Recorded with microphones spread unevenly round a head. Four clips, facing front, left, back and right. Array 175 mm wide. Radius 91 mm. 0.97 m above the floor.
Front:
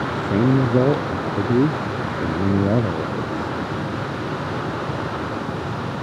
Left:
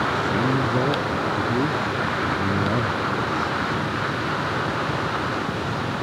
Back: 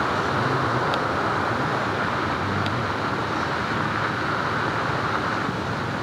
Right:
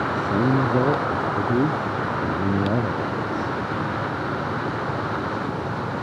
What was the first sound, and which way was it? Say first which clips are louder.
A man speaking: right 1 dB, front 4 dB; 15° right.